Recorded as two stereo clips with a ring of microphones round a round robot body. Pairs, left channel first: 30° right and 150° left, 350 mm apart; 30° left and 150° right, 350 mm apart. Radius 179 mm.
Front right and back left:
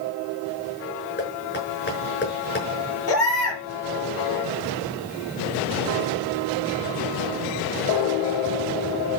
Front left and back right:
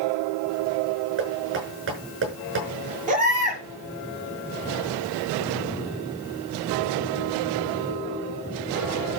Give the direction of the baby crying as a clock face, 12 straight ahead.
3 o'clock.